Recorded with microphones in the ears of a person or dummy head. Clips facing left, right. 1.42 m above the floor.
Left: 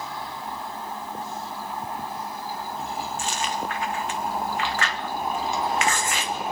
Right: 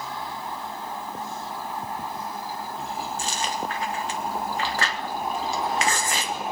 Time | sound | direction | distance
3.2 | chewing | 35° right (ahead or behind) | 1.0 m